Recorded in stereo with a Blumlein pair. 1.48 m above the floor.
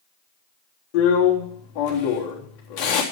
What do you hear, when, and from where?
0.9 s a drill: 40° left, 3.5 m